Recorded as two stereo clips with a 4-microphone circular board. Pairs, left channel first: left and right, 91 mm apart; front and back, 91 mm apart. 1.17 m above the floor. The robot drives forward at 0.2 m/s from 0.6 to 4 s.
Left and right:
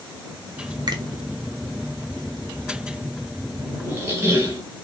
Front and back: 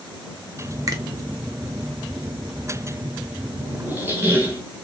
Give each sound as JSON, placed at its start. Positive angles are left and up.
{"t": 0.9, "sound": "a finger snap", "azimuth_deg": -130, "distance_m": 0.6}
{"t": 3.8, "sound": "a squeak", "azimuth_deg": -130, "distance_m": 0.8}